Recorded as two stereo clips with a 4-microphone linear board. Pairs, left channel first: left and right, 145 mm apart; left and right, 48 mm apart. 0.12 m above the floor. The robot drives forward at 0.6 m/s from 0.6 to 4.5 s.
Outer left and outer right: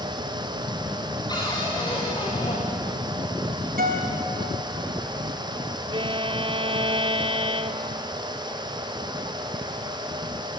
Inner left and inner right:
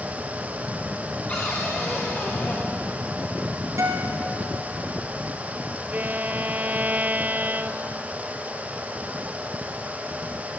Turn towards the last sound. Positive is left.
turn(degrees=-35)  # may be behind; listen again after turning